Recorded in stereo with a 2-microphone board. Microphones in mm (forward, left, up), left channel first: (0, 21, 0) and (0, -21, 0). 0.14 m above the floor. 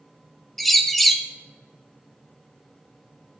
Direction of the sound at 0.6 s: 5° left (ahead or behind).